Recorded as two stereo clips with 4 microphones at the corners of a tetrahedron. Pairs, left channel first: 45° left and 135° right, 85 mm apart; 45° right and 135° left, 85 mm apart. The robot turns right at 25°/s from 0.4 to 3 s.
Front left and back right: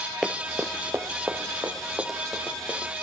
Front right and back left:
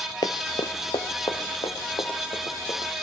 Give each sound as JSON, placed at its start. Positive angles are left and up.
{"t": 0.2, "sound": "running footsteps", "azimuth_deg": -45, "distance_m": 0.8}